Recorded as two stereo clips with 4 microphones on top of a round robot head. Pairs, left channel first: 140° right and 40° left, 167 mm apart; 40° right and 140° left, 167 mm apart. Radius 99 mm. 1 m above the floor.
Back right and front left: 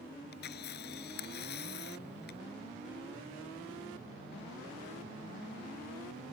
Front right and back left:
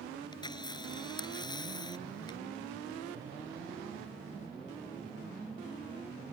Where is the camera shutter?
105° right.